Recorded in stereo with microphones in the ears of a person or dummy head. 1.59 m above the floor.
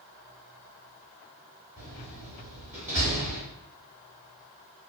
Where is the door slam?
15° right (ahead or behind), 1.8 m.